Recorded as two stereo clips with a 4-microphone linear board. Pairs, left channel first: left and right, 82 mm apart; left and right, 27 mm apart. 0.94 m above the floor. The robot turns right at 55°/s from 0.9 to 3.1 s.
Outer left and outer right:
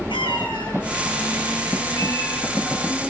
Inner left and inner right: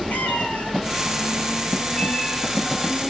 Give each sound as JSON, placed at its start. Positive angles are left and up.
{"t": 0.1, "sound": "a cat meowing", "azimuth_deg": 80, "distance_m": 8.5}